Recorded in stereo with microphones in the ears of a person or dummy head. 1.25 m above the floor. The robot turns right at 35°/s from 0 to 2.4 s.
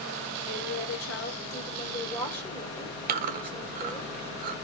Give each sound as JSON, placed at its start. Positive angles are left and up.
{"t": 0.5, "sound": "a woman speaking", "azimuth_deg": 100, "distance_m": 1.1}
{"t": 3.1, "sound": "chewing", "side_deg": -50, "distance_m": 0.6}